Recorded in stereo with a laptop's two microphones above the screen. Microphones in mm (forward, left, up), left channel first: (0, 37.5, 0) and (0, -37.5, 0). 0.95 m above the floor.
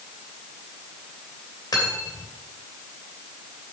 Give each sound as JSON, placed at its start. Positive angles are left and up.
{"t": 1.7, "sound": "cutlery clinking", "side_deg": 70, "distance_m": 3.0}